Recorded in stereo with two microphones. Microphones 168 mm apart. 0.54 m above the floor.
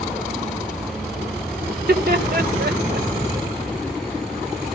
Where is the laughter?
60° right (ahead or behind), 1.5 m; by 3.1 s 70° right (ahead or behind), 2.5 m.